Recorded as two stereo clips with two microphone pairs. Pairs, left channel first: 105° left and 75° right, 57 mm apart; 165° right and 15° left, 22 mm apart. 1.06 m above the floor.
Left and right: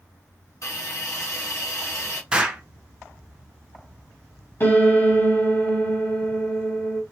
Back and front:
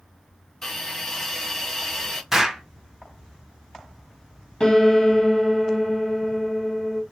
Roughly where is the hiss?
Behind left.